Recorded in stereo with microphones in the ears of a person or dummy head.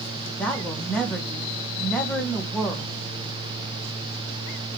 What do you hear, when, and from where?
0.4 s a woman speaking: 5° left (ahead or behind), 2 m